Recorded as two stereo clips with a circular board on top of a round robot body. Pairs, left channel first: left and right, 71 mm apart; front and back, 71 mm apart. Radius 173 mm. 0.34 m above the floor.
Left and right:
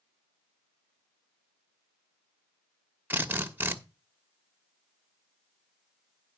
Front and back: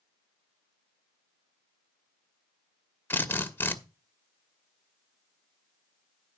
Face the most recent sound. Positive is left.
turn(degrees=-40)